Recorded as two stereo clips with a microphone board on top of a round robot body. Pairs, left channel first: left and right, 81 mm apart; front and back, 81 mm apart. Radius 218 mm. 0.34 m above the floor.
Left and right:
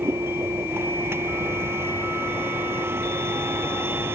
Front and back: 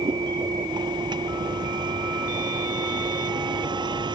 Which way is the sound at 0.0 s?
150° right.